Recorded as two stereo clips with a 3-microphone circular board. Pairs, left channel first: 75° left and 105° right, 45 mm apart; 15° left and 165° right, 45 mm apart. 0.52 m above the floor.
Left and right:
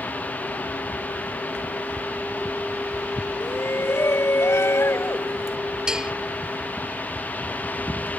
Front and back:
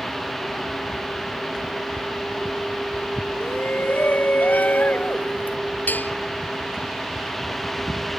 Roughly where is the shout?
Ahead left.